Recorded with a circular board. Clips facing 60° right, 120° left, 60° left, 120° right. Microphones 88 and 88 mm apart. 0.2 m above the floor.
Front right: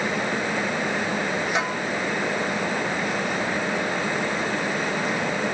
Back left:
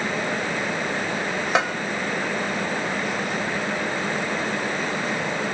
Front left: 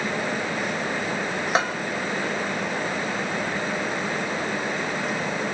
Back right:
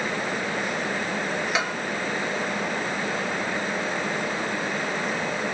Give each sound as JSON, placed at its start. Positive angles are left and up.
{"t": 1.6, "sound": "a bell", "azimuth_deg": 110, "distance_m": 0.8}